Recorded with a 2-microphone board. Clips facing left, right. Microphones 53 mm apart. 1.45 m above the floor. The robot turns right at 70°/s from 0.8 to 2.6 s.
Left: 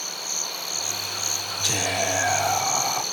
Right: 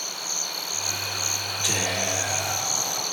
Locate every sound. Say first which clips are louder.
1.6 s whispering: left 2 dB; 10° right, 2 m; by 3.0 s 60° left, 2 m